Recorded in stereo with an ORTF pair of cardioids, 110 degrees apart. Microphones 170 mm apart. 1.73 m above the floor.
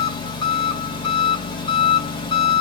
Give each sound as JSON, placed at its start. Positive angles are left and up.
{"t": 0.0, "sound": "an engine running", "azimuth_deg": 30, "distance_m": 1.7}